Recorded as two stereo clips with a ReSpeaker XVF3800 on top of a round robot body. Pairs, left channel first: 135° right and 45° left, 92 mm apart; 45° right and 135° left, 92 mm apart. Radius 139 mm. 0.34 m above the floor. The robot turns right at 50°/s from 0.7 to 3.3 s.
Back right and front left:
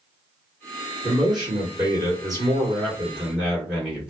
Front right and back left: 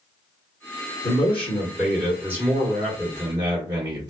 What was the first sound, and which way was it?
A man speaking, 10° left.